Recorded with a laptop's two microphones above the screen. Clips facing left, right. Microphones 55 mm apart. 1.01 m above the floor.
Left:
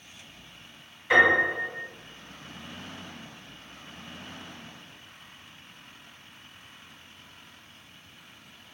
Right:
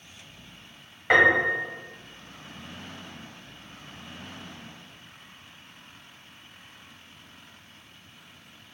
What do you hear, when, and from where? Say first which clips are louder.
1.1 s a piano: right 1 dB; 60° right (ahead or behind), 1.3 m